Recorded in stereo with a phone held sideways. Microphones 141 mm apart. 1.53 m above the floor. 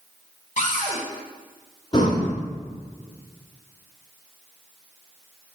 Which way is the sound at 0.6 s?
60° left (ahead or behind).